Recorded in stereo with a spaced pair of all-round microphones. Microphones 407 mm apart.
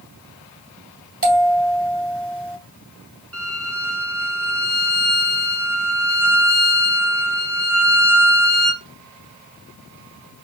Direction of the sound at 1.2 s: 35° right (ahead or behind).